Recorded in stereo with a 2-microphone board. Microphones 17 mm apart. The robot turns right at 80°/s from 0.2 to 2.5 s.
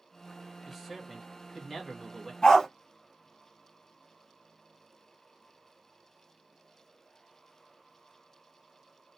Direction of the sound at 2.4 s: 40° left (ahead or behind).